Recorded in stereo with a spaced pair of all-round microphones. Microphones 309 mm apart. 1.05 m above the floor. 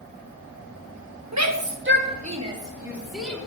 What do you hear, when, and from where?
1.3 s a shout: 60° right (ahead or behind), 1.3 m; by 3.4 s 5° left (ahead or behind), 2 m